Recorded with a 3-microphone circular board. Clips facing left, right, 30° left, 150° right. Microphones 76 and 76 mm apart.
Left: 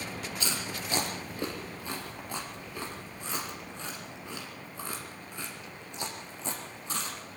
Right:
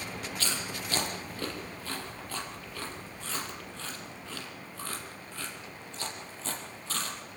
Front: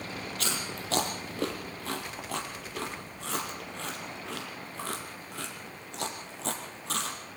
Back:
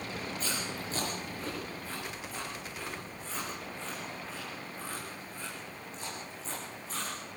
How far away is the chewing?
About 4.5 m.